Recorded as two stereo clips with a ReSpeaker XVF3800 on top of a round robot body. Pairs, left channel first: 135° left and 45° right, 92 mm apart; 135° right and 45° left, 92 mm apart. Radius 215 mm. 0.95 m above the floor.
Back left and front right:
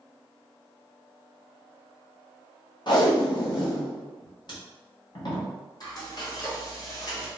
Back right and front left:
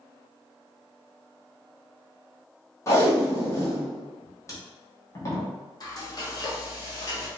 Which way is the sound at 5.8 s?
Straight behind.